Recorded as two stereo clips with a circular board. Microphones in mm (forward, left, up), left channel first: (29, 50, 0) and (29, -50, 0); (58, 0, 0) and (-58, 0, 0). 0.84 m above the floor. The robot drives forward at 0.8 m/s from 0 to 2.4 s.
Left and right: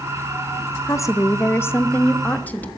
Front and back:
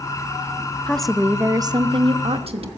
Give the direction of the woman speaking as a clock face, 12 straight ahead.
10 o'clock.